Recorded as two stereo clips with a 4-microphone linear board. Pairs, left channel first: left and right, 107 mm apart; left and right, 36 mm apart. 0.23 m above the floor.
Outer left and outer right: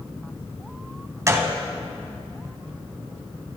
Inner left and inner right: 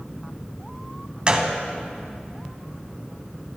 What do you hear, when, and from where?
1.3 s a gunshot: 30° right (ahead or behind), 0.8 m